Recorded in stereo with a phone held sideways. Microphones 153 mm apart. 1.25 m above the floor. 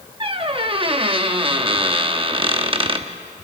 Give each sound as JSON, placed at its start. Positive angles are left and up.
{"t": 0.2, "sound": "a squeak", "side_deg": -35, "distance_m": 0.9}